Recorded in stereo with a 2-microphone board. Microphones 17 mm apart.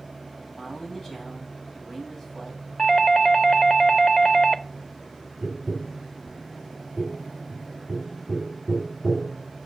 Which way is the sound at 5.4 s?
15° right (ahead or behind).